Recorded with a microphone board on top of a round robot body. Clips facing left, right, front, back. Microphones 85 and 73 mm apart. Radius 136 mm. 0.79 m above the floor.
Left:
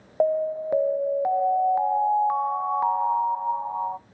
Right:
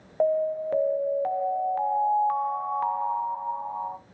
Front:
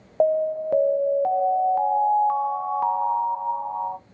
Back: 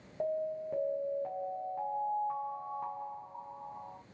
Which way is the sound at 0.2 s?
15° left.